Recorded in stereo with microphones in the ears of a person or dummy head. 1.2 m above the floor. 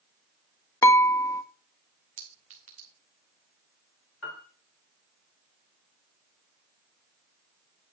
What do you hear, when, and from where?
0.8 s dishes clattering: 15° left (ahead or behind), 0.9 m
2.2 s a clink: 40° right (ahead or behind), 1.6 m
4.2 s a piano: 75° left (ahead or behind), 2.5 m